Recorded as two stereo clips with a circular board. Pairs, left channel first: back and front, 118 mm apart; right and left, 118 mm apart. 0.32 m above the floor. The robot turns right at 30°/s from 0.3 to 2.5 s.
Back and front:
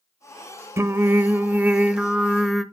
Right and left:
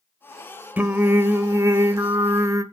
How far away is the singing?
About 0.8 m.